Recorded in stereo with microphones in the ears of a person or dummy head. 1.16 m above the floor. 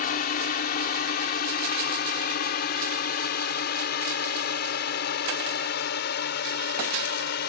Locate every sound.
0.0 s a drone: 50° left (ahead or behind); by 7.5 s 60° left (ahead or behind)